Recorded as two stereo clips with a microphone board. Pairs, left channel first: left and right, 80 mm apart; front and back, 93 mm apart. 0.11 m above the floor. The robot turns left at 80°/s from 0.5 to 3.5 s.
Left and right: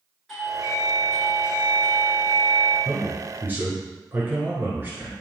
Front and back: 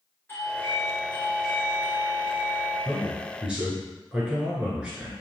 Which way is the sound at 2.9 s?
60° right.